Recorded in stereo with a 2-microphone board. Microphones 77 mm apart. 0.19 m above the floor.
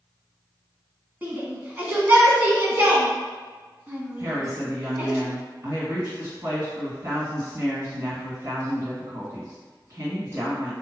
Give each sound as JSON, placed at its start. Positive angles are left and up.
{"t": 1.2, "sound": "a shout", "side_deg": -25, "distance_m": 1.3}
{"t": 4.2, "sound": "a woman speaking", "side_deg": -45, "distance_m": 1.9}